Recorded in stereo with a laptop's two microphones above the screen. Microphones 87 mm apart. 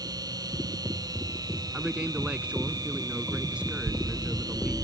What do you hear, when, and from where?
0.0 s a machine running: 45° right (ahead or behind)
1.7 s a man speaking: 10° right (ahead or behind)